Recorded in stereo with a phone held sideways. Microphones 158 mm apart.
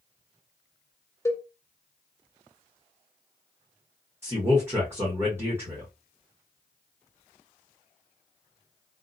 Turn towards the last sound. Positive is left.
turn(degrees=-15)  # may be behind; listen again after turning